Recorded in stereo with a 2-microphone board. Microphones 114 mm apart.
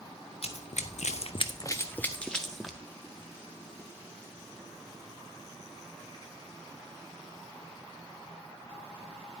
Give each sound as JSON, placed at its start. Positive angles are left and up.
{"t": 0.4, "sound": "running footsteps", "side_deg": 60, "distance_m": 1.0}